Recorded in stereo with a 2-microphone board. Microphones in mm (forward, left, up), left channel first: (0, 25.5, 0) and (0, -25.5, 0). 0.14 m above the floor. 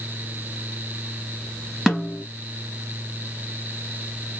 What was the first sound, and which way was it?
A snare drum, 5° right (ahead or behind).